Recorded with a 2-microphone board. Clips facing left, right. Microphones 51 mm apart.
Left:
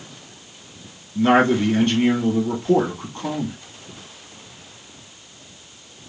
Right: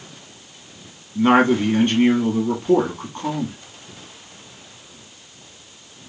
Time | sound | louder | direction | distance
1.1 | a man speaking | right 1 dB | 5° right (ahead or behind) | 1.0 m